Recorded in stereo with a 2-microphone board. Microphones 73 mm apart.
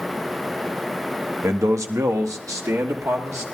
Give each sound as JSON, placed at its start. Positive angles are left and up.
{"t": 1.4, "sound": "a man speaking", "side_deg": -45, "distance_m": 1.1}